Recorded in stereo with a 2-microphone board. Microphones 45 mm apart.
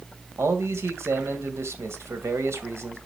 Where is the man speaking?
70° right (ahead or behind), 2.5 m.